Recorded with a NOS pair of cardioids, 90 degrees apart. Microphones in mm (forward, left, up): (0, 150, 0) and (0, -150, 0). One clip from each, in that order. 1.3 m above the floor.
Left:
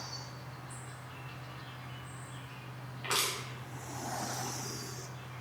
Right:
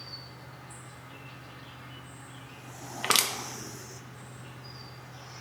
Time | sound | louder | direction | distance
0.0 | an insect | even | 10° right | 0.8 m
3.0 | crushing | right 6 dB | 60° right | 0.6 m